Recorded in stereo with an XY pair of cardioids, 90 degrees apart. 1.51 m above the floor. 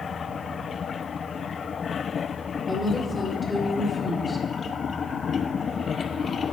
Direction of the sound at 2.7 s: 20° left.